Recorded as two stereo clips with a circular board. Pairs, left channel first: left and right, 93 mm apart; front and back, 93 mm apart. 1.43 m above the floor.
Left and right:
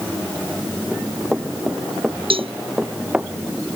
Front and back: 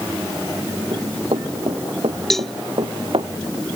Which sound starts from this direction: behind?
Running footsteps, at 0.9 s.